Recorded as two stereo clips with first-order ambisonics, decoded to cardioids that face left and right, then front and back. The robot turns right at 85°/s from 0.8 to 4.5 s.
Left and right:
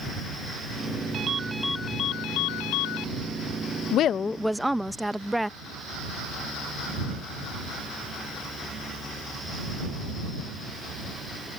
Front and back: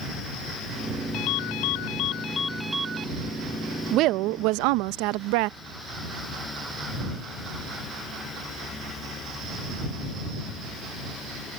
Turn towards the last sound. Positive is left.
turn(degrees=180)